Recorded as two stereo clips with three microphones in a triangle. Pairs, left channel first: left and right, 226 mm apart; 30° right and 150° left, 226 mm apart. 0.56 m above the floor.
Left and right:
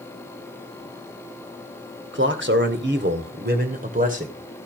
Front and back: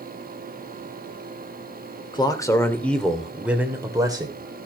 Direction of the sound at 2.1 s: 95° right.